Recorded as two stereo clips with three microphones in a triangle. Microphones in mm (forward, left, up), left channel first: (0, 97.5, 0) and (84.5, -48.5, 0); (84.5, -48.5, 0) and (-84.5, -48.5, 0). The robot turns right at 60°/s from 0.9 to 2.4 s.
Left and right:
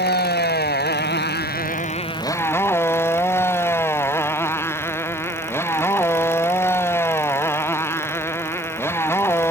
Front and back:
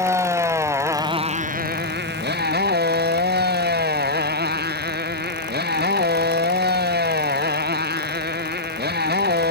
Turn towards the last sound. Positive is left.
turn(degrees=-165)